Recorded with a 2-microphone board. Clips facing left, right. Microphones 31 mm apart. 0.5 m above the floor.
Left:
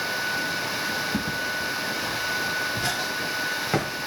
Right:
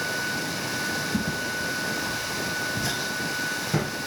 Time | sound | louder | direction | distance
1.1 | footsteps | left 1 dB | 35° left (ahead or behind) | 7 m